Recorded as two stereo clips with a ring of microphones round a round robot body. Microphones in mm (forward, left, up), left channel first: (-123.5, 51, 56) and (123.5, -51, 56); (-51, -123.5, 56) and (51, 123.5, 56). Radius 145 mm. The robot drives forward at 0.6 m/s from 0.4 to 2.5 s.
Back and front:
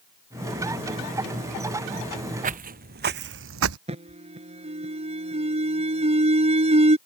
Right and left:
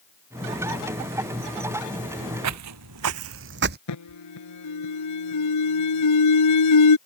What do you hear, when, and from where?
2.4 s footsteps: 40° left; by 3.8 s 10° left
3.9 s an alarm: 90° right